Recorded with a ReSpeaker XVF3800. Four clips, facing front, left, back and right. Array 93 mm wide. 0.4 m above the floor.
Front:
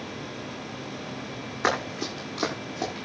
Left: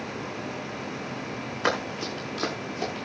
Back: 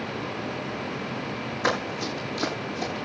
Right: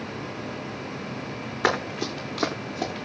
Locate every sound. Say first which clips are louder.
1.6 s running footsteps: right 3 dB, even; 60° right, 9.5 m; by 3.0 s 55° right, 10 m